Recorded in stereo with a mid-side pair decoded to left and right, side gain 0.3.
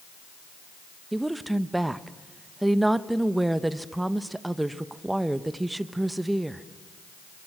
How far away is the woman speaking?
About 1.1 m.